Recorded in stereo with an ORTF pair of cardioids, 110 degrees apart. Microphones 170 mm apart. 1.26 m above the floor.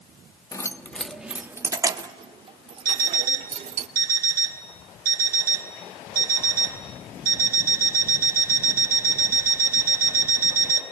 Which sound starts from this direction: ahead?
Keys jangling, at 0.5 s.